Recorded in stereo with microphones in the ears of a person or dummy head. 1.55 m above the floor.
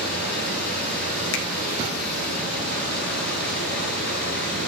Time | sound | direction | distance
0.0 | running water | 55° left (ahead or behind) | 10 m
1.3 | a finger snap | 70° left (ahead or behind) | 2 m